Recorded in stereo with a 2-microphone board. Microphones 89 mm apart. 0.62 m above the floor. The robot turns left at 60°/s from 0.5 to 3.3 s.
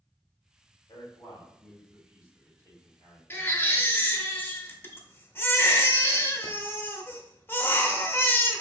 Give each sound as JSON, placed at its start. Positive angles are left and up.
{"t": 0.9, "sound": "a man speaking", "side_deg": 55, "distance_m": 2.5}
{"t": 3.3, "sound": "a baby crying", "side_deg": 25, "distance_m": 0.6}